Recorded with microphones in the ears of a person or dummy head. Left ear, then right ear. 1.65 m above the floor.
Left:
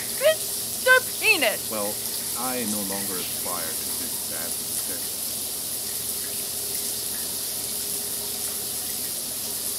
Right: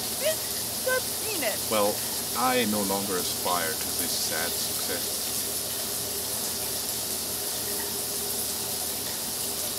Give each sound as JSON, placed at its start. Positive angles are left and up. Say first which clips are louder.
{"t": 0.2, "sound": "a shout", "louder": "left 8 dB", "side_deg": 40}
{"t": 1.7, "sound": "a man speaking", "louder": "right 4 dB", "side_deg": -85}